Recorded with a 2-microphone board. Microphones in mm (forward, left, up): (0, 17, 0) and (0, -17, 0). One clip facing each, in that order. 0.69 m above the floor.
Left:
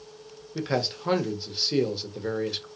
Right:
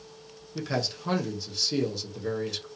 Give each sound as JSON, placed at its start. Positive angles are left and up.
{"t": 0.6, "sound": "a man speaking", "side_deg": 20, "distance_m": 0.7}